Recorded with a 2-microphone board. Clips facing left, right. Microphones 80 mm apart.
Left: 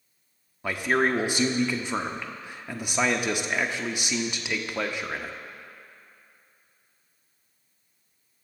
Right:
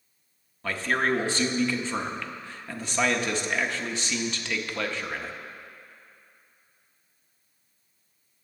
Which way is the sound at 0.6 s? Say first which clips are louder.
Left 2 dB; 15° left (ahead or behind).